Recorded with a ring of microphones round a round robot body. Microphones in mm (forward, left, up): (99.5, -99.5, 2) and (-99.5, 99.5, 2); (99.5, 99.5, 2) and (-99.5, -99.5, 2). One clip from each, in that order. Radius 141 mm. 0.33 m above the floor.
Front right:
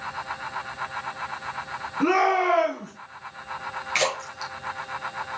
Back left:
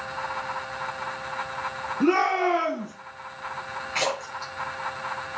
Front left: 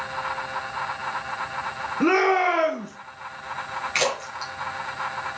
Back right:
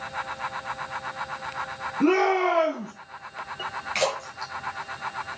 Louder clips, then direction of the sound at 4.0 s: Front right 2 dB, front left 2 dB; 30° right.